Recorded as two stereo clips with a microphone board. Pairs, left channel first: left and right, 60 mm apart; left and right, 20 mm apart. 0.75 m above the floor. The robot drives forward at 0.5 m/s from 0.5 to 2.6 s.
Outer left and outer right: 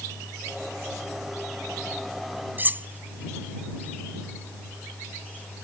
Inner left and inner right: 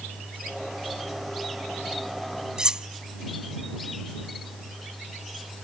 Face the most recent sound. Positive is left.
turn(degrees=-35)  # may be behind; listen again after turning